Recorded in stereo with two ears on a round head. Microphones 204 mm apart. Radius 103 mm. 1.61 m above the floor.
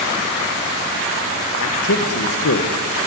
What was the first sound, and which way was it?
A man speaking, 70° left (ahead or behind).